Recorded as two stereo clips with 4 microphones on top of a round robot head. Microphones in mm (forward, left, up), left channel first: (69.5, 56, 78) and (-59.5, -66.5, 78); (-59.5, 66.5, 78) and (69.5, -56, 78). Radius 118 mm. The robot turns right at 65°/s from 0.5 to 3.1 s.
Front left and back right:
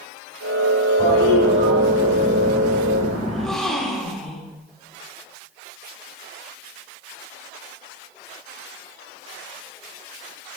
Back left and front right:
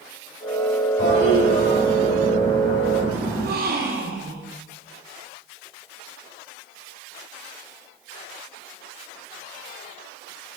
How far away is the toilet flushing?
About 5.5 m.